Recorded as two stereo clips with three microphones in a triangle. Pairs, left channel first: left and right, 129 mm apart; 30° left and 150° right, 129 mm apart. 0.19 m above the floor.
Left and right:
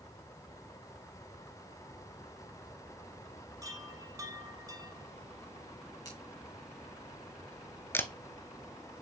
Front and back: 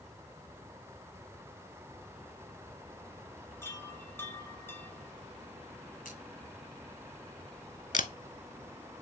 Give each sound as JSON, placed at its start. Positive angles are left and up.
{"t": 3.6, "sound": "a chime", "azimuth_deg": -35, "distance_m": 1.1}
{"t": 6.0, "sound": "scissors", "azimuth_deg": 30, "distance_m": 3.0}
{"t": 7.9, "sound": "a camera shutter", "azimuth_deg": 20, "distance_m": 0.5}